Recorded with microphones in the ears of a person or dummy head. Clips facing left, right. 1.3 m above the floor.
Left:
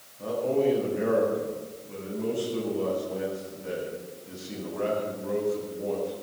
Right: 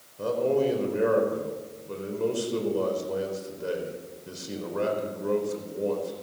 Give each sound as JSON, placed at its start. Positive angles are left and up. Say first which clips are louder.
{"t": 0.2, "sound": "a man speaking", "louder": "right 1 dB", "side_deg": -70, "distance_m": 4.5}